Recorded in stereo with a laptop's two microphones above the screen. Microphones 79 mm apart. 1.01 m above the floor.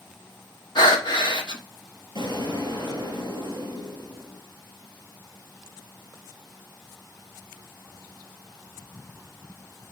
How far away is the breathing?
About 1.1 m.